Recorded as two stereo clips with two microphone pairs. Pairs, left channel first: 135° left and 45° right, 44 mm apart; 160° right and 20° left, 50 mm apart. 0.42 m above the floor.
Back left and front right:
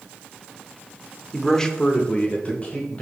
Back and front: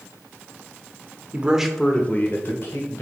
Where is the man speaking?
50° left, 0.9 m; by 3.0 s 165° right, 1.7 m.